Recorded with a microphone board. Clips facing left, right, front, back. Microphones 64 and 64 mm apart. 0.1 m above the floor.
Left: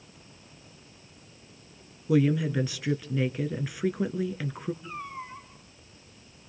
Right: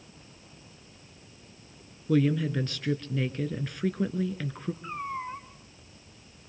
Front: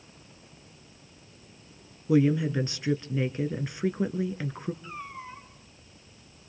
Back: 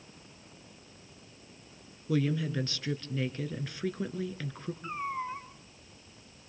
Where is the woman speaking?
20° left, 1.4 m.